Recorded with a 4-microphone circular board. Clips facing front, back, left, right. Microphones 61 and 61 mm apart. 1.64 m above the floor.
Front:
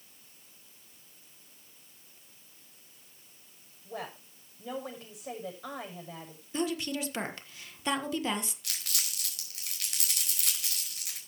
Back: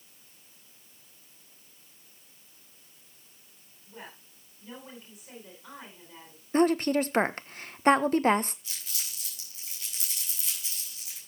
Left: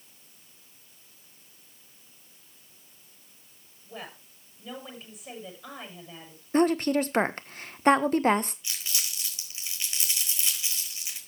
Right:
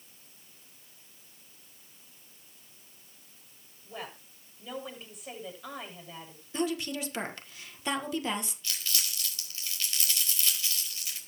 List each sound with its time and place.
3.9 s a woman speaking: straight ahead, 7.5 m
6.5 s a woman speaking: 135° left, 1.3 m
8.6 s crumpling: 20° left, 4.5 m